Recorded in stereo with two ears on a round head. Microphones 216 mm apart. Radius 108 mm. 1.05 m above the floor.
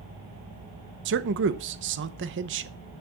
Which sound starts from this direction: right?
A man speaking, at 1.1 s.